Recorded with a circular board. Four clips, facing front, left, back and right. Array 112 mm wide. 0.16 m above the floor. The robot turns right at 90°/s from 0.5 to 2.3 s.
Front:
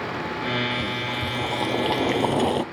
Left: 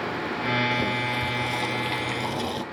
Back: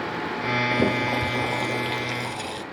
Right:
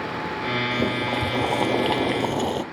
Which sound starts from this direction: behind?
Boiling, at 0.7 s.